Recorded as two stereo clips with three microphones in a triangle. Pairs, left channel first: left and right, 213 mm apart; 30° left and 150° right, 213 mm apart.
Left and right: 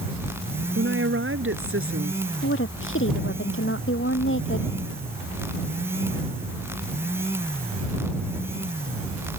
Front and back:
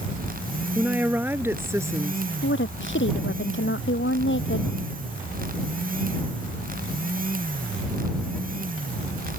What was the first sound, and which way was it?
A woman speaking, 65° right.